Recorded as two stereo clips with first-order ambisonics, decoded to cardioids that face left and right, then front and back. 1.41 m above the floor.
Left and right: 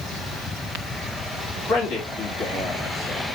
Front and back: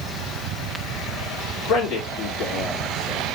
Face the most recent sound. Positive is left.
turn(degrees=45)